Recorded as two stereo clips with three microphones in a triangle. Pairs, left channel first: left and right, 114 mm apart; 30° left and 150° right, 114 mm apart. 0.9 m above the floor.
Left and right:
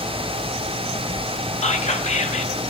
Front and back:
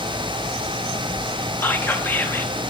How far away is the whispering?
About 0.9 m.